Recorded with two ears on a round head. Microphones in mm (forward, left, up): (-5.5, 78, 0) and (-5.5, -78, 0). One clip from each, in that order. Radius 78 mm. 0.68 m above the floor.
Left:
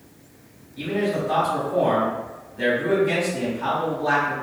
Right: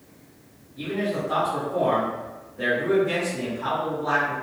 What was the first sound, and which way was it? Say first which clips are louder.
A man speaking: left 3 dB; 50° left (ahead or behind).